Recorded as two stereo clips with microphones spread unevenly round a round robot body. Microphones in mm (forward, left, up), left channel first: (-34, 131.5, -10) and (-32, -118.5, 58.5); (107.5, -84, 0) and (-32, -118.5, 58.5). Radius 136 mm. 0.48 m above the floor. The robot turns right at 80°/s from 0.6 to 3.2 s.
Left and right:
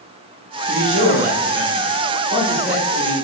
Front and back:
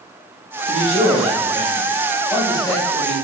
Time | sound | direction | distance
0.7 | a man speaking | 150° right | 1.3 m